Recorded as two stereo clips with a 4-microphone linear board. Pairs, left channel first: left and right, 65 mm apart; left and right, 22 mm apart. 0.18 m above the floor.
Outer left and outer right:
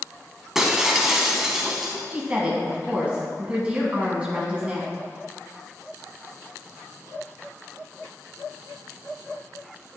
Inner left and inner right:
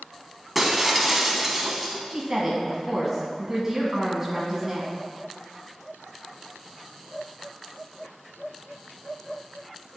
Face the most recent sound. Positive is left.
turn(degrees=-20)  # may be behind; listen again after turning